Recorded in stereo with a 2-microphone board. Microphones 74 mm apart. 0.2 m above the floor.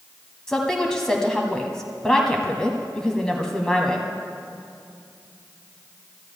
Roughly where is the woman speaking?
Centre.